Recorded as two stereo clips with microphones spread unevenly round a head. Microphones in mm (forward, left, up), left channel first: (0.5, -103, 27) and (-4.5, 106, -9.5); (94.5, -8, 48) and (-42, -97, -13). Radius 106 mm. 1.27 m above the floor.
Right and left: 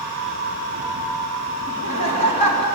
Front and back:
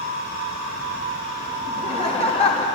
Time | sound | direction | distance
1.7 | laughter | 25° right | 3 m